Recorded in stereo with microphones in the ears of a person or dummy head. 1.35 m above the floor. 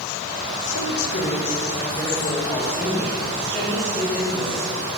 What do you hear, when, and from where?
0.7 s a man speaking: 70° left (ahead or behind), 1.4 m; by 4.8 s 10° right (ahead or behind), 3.5 m